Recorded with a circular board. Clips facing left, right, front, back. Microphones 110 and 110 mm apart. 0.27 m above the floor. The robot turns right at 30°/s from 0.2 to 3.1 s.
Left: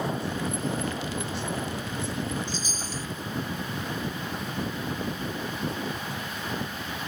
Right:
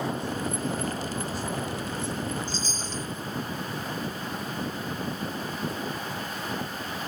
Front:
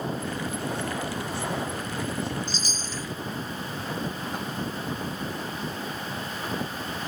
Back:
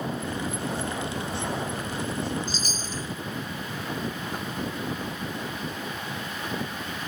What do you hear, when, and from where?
2.5 s a chime: 155° left, 0.9 m; by 3.1 s 175° left, 0.9 m